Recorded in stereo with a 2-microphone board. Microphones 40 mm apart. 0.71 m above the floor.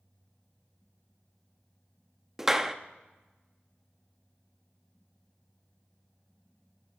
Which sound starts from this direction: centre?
A clap, at 2.4 s.